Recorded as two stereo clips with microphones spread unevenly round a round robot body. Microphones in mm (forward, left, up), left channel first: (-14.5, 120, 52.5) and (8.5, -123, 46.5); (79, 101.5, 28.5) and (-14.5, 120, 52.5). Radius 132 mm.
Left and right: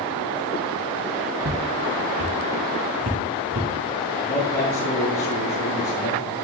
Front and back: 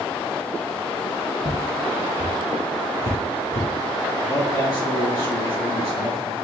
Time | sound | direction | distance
1.4 | footsteps | 55° right | 3 m
4.2 | a man speaking | 40° left | 4.5 m